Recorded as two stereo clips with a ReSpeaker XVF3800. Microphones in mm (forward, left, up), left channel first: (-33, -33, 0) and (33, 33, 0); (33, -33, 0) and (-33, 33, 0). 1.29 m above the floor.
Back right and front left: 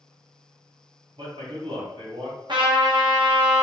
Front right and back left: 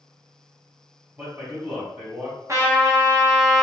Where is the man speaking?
65° left, 1.6 m.